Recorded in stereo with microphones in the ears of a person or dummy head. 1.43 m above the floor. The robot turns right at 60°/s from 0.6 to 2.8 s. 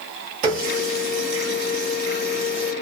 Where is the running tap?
40° right (ahead or behind), 1.4 m; by 2.7 s 5° right (ahead or behind), 1.4 m.